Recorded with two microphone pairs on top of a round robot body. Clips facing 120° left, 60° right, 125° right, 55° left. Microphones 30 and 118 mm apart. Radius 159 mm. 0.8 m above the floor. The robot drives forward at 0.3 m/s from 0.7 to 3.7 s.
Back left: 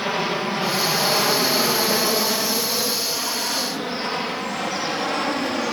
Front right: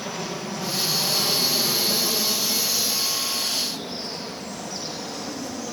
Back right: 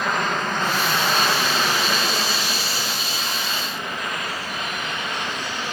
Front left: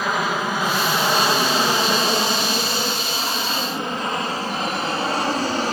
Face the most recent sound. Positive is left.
turn(degrees=90)